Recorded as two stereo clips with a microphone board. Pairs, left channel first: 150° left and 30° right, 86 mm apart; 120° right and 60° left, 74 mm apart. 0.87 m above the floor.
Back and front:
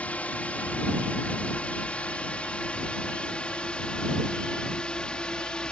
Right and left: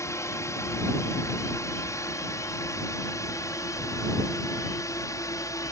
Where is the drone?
140° right; by 5.7 s 135° right.